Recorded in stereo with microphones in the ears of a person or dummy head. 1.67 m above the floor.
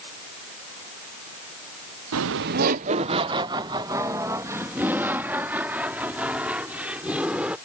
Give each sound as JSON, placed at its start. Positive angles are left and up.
{"t": 2.1, "sound": "laughter", "side_deg": -75}